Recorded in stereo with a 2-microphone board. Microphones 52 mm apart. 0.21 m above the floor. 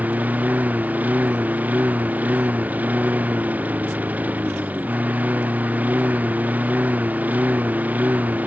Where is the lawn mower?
30° right (ahead or behind).